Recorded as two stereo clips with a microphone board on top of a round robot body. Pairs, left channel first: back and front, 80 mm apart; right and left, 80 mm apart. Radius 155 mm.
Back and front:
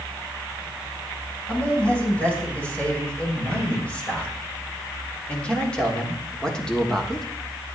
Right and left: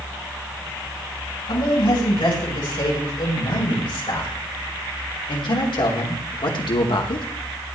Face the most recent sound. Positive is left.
turn(degrees=-95)